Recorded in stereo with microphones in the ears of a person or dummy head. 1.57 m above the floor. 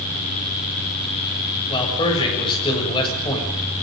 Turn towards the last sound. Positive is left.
turn(degrees=25)  # may be behind; listen again after turning